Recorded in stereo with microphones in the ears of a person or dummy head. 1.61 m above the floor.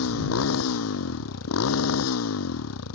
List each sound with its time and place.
0.0 s a motorcycle: 85° left; by 3.0 s 90° left